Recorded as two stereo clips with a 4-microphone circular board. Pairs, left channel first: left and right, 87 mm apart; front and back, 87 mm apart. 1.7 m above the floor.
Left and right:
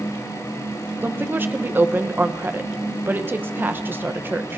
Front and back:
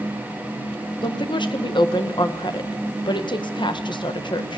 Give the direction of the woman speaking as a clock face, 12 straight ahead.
1 o'clock.